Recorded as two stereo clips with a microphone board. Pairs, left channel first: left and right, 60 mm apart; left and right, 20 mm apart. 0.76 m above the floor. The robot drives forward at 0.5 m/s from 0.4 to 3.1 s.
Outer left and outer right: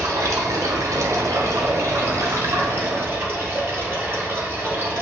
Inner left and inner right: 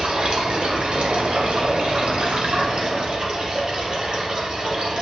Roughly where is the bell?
I don't hear a bell.